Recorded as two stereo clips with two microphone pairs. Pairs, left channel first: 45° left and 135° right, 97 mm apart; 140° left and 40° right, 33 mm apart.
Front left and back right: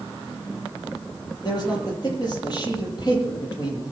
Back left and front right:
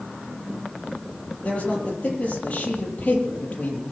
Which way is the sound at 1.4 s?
85° left.